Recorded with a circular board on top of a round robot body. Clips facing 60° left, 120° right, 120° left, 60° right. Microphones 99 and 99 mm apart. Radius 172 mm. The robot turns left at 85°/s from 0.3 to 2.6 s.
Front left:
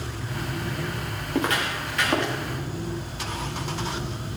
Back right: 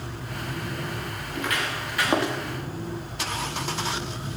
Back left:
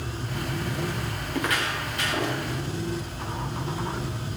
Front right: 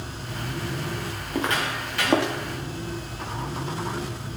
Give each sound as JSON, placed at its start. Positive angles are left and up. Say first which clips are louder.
{"t": 1.3, "sound": "footsteps", "louder": "front left 4 dB, front right 2 dB", "azimuth_deg": 15, "distance_m": 2.5}